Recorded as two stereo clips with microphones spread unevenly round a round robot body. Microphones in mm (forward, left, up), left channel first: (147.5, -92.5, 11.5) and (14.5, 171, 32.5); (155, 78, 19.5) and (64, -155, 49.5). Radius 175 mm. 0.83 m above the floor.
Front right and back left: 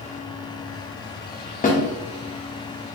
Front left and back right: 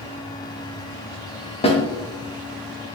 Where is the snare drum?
Straight ahead, 1.3 m.